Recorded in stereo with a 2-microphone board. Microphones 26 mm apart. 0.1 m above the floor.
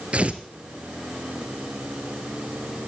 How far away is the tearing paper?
About 1.3 m.